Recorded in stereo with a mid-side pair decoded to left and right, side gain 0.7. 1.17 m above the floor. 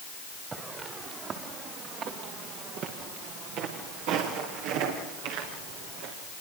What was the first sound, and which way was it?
Footsteps, 25° right.